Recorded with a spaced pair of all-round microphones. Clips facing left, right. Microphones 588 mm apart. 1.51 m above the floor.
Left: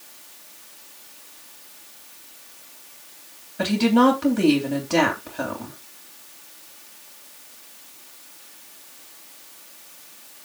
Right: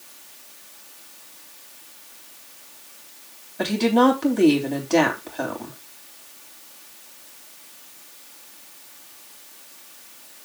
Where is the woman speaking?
35° left (ahead or behind), 3.5 m.